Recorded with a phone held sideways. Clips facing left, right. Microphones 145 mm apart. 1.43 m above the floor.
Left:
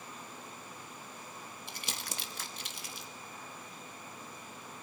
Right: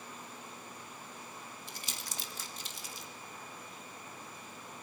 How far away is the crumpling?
About 1.9 m.